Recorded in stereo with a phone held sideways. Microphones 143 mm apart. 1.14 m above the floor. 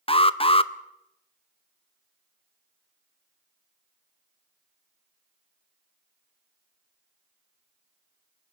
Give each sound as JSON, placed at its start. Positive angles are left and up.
{"t": 0.1, "sound": "an alarm", "side_deg": 40, "distance_m": 0.7}